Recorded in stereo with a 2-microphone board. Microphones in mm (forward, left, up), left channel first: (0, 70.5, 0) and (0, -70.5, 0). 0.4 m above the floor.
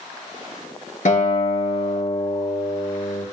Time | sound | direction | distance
1.1 | a guitar | 65° left (ahead or behind) | 4 m